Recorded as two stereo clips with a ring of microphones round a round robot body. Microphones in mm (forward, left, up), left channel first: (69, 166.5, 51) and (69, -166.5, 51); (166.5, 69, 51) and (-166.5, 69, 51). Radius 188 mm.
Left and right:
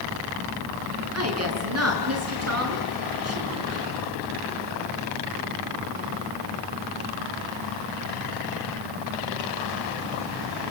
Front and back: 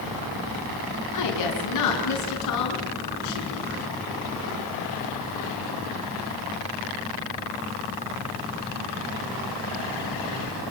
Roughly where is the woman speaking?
Ahead right.